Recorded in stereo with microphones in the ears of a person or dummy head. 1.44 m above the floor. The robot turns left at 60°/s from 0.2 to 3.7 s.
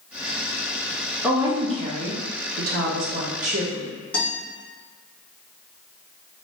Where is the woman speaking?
10° right, 0.7 m; by 3.9 s 160° right, 0.7 m.